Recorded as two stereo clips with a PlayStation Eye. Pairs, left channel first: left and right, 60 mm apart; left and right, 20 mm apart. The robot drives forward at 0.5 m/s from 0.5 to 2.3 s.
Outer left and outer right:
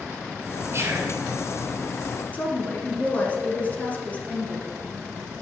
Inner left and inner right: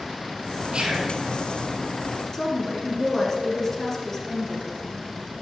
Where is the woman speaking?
25° left (ahead or behind), 1.7 m.